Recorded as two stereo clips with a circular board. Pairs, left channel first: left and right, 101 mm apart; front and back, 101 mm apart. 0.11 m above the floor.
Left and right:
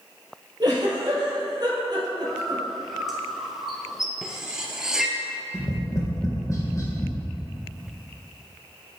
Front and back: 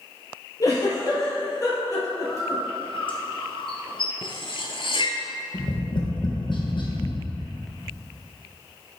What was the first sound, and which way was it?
A giggle, 50° right.